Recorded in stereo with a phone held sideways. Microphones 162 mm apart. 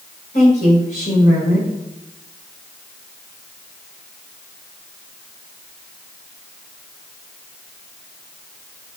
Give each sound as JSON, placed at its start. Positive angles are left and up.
{"t": 0.3, "sound": "a woman speaking", "side_deg": 55, "distance_m": 3.5}